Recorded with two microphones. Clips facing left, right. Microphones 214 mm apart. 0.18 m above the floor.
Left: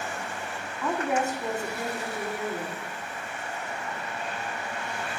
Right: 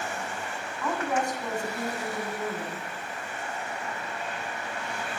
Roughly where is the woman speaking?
Centre.